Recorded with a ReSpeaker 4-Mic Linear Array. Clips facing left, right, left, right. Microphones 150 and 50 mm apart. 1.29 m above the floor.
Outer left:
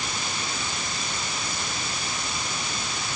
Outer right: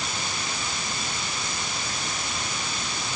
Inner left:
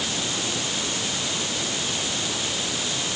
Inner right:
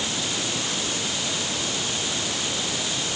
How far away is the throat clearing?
No throat clearing in this recording.